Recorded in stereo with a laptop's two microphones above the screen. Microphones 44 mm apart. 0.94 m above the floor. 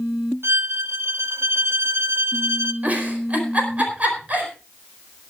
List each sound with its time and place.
0.4 s a violin: 70° right (ahead or behind), 0.9 m
2.8 s a giggle: 35° right (ahead or behind), 4.5 m